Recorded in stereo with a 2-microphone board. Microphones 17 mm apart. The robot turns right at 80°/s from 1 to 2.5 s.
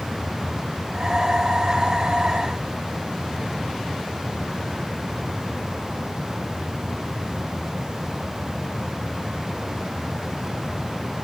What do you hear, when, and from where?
Only background noise.